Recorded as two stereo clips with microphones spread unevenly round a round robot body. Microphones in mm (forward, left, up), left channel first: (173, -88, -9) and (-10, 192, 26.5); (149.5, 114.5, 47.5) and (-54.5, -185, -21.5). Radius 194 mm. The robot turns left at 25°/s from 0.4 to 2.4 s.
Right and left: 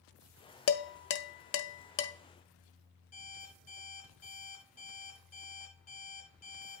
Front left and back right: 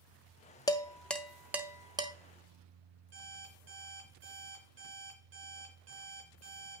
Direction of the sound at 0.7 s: 30° right.